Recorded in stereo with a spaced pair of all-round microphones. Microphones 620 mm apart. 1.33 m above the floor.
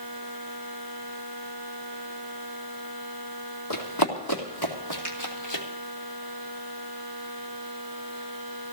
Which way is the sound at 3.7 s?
35° left (ahead or behind).